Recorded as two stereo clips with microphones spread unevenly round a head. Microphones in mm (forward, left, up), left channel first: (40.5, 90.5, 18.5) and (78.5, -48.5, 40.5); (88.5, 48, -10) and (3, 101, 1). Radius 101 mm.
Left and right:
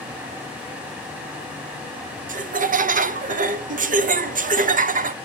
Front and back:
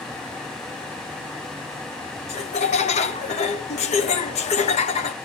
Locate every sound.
2.3 s laughter: 40° right, 0.8 m